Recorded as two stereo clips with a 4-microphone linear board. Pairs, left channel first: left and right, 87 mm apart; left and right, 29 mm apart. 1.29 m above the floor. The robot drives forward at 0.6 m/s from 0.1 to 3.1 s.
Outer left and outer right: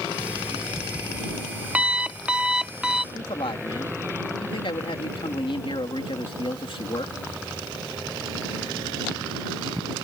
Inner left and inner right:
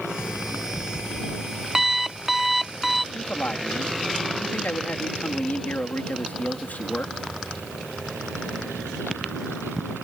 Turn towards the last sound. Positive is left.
turn(degrees=75)  # may be behind; listen again after turning